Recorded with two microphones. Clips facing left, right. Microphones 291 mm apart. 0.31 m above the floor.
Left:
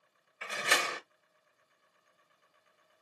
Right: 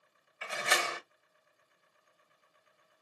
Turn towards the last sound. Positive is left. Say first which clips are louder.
# even
turn(degrees=40)  # may be behind; listen again after turning